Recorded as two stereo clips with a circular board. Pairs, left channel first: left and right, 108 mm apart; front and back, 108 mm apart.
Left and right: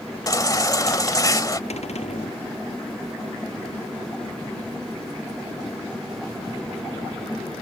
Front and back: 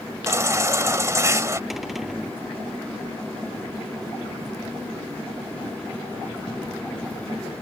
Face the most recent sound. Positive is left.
turn(degrees=90)